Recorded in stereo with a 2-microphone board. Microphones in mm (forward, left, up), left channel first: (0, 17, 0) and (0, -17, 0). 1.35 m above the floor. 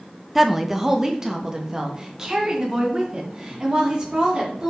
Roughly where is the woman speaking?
Centre.